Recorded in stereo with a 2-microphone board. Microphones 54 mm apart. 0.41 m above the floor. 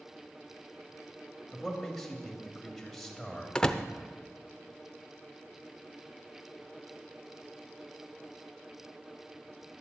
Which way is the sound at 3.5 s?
15° left (ahead or behind).